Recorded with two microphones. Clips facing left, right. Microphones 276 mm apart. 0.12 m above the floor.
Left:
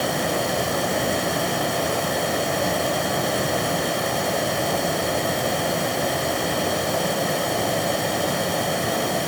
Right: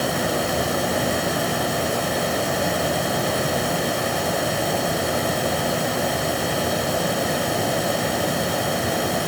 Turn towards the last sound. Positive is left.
No sound to turn to.